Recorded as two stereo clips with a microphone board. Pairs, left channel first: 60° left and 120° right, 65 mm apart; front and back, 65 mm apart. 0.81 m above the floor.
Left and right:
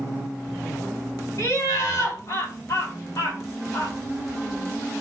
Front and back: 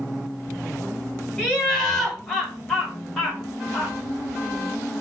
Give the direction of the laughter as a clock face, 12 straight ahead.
9 o'clock.